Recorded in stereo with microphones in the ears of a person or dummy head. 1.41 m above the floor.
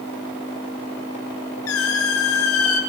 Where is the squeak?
80° left, 5 m.